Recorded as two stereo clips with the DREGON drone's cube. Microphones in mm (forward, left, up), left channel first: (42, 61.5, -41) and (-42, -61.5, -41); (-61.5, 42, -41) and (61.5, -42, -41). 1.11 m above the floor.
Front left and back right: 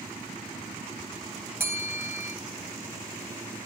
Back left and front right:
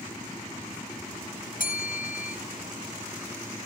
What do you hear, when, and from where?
1.6 s a bell: 160° left, 4.5 m